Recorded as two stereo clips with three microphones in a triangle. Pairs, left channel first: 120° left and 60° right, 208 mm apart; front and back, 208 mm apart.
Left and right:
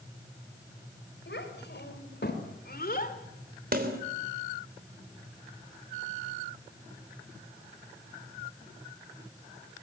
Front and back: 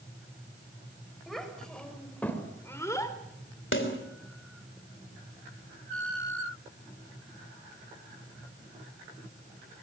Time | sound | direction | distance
1.3 | a child speaking | 90° left | 5 m
3.7 | a snare drum | 15° right | 3.5 m